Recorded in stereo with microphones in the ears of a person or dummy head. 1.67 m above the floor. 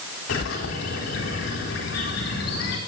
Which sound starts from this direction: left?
A bird, at 0.3 s.